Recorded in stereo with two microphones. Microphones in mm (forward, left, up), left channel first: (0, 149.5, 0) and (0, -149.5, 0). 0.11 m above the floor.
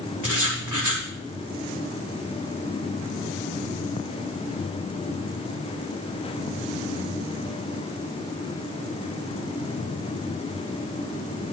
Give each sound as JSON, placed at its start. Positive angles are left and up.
{"t": 0.2, "sound": "writing", "side_deg": -85, "distance_m": 4.5}